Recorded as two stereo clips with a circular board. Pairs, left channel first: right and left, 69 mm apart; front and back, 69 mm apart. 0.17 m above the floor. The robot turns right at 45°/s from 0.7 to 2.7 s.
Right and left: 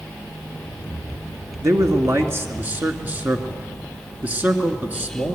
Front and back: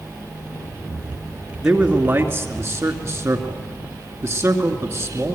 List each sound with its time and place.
1.6 s a man speaking: 100° left, 2.5 m; by 5.4 s 150° left, 2.5 m